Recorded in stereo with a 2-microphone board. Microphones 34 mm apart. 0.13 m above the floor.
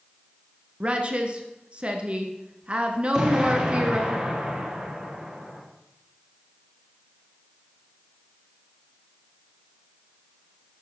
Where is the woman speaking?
35° right (ahead or behind), 1.7 m.